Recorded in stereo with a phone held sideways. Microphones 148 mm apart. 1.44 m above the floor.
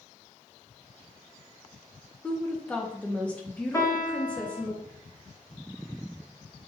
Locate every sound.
2.2 s a woman speaking: 10° left (ahead or behind), 0.6 m
3.7 s a piano: 20° left (ahead or behind), 0.8 m